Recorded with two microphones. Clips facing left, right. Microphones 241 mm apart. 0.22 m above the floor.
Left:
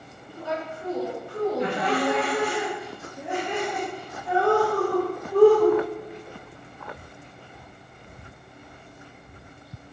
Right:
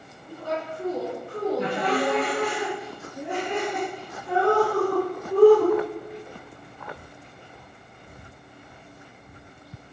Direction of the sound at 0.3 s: 55° right (ahead or behind).